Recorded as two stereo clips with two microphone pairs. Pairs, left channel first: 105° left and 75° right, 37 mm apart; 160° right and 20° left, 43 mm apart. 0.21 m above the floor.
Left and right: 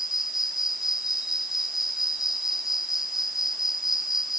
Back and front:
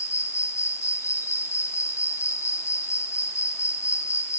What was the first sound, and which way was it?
An insect, 155° right.